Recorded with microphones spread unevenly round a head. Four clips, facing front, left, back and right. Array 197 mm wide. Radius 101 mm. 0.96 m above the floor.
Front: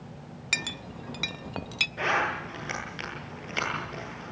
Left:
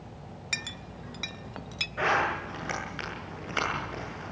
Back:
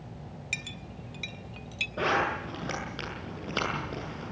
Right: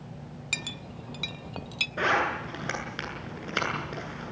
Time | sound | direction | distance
0.5 | a clink | 10° right | 0.6 m
2.0 | a zipper | 145° right | 8.5 m